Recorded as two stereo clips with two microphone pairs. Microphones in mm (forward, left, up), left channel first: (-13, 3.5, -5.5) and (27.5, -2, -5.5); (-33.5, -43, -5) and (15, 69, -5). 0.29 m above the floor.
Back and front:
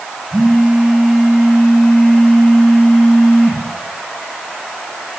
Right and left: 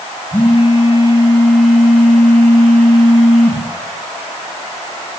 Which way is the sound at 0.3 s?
70° right.